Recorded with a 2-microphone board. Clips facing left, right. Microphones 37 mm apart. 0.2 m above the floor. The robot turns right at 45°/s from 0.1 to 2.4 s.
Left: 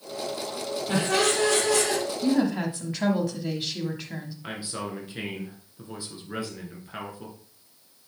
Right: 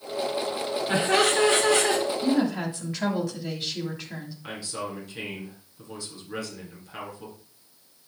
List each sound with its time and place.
0.9 s laughter: 165° right, 1.8 m; by 2.0 s 115° right, 1.8 m
2.2 s a woman speaking: centre (ahead or behind), 1.5 m; by 4.3 s 5° left (ahead or behind), 1.5 m
4.4 s a man speaking: 20° left (ahead or behind), 3 m